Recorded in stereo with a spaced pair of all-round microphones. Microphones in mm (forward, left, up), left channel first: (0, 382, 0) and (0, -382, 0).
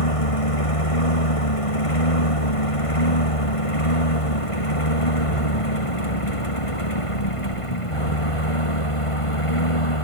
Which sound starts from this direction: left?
A lawn mower, at 0.0 s.